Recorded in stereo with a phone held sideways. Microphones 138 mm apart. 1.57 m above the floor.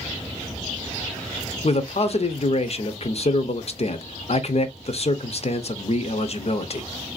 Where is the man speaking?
50° left (ahead or behind), 0.5 m.